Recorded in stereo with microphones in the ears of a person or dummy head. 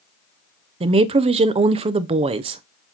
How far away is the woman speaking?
About 0.6 m.